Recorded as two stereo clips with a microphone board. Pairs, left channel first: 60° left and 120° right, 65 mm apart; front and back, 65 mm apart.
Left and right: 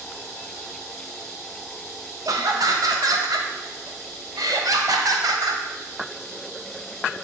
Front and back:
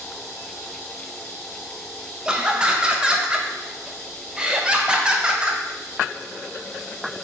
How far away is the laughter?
About 0.7 m.